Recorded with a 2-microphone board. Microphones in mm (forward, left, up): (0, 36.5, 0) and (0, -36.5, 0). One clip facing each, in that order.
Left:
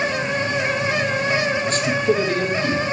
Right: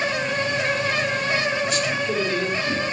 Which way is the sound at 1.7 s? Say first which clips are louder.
Left 4 dB; 35° left (ahead or behind).